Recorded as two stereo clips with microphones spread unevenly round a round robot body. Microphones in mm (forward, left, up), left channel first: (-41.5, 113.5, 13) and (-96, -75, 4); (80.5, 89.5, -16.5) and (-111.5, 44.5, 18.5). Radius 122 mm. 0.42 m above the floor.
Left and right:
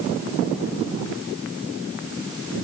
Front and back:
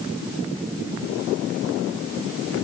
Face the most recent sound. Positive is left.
No sound to turn to.